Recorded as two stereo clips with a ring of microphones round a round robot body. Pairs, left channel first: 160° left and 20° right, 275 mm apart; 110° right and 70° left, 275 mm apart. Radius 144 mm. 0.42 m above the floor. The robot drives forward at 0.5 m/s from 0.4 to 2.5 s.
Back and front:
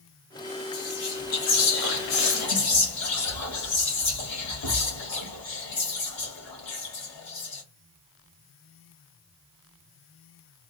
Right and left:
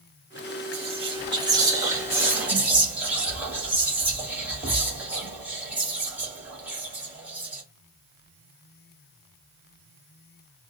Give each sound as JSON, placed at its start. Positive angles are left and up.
{"t": 0.7, "sound": "whispering", "azimuth_deg": 130, "distance_m": 1.4}